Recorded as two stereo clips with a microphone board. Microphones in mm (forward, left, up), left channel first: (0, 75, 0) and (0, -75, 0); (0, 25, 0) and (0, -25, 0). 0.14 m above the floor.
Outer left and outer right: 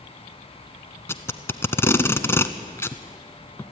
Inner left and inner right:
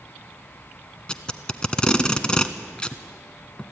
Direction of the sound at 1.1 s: 15° left (ahead or behind).